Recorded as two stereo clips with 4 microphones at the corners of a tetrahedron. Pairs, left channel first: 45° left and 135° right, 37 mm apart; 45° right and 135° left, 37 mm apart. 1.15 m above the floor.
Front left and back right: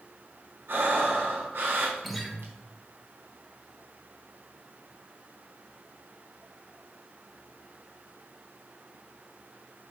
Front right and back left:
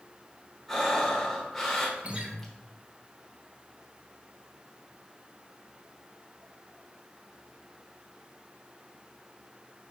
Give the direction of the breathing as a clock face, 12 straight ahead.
4 o'clock.